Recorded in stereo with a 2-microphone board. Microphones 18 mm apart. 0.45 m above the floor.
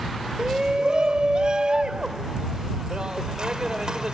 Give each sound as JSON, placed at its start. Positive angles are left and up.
{"t": 0.4, "sound": "a shout", "side_deg": -50}